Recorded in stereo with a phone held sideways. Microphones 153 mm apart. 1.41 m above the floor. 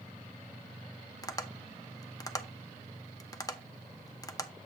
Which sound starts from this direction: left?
Tapping, at 1.2 s.